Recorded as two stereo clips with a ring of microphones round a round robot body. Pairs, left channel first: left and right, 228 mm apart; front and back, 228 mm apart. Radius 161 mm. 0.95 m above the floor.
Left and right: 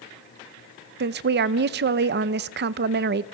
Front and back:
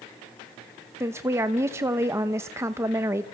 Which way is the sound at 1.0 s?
105° right.